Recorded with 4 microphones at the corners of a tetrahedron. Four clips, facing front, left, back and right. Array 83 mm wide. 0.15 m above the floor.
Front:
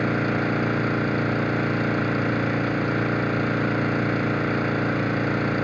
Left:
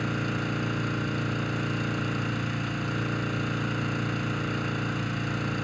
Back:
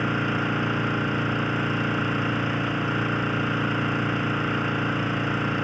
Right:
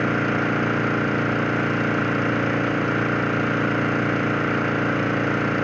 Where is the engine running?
70° right, 0.9 m.